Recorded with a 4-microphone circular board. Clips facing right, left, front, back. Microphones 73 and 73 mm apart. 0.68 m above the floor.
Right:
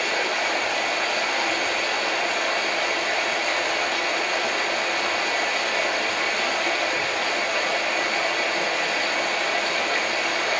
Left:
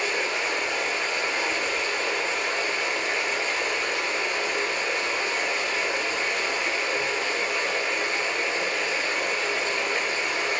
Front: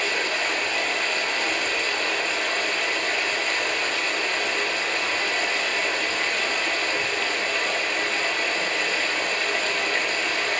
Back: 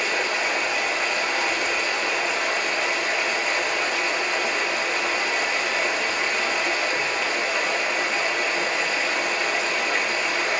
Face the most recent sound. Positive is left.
turn(degrees=-105)